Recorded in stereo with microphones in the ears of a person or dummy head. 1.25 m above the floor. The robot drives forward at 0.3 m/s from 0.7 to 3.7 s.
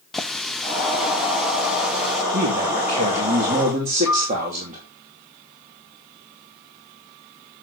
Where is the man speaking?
40° right (ahead or behind), 2 m; by 4.8 s 35° right (ahead or behind), 2.5 m.